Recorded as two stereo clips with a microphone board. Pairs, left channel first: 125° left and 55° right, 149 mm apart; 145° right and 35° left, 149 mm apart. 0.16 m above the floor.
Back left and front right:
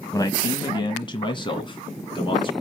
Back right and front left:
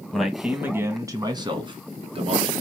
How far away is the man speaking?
About 1.1 m.